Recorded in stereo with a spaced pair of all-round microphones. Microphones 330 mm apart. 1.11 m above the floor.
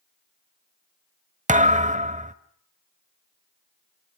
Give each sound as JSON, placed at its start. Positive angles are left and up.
{"t": 1.5, "sound": "a thud", "side_deg": -20, "distance_m": 0.9}